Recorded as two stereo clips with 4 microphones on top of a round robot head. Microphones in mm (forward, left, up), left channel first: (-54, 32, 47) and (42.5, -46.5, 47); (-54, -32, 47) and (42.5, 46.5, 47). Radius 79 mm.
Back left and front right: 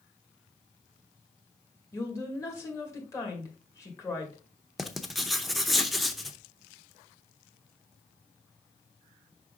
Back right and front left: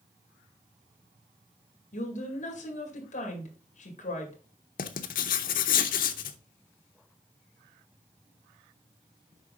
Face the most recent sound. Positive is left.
turn(degrees=-130)